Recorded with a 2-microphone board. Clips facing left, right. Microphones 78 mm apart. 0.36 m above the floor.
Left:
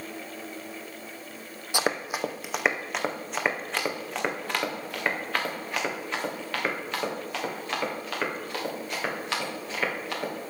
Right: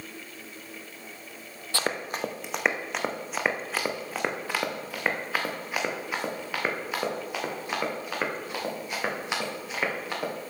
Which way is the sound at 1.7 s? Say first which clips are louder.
Left 2 dB; 15° left (ahead or behind).